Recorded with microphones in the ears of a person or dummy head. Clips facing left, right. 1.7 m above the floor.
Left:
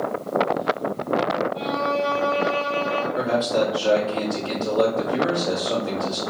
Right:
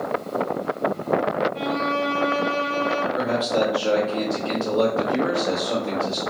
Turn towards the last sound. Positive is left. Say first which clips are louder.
# left 2 dB
turn(degrees=5)  # may be behind; listen again after turning